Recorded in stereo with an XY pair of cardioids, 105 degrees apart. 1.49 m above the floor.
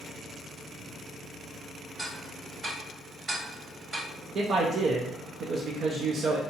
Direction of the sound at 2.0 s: 40° right.